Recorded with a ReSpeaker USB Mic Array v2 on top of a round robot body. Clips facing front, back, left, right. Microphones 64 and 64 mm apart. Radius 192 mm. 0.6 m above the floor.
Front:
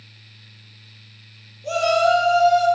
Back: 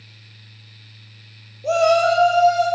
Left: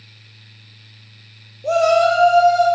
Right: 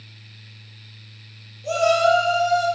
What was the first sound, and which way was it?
A shout, 125° left.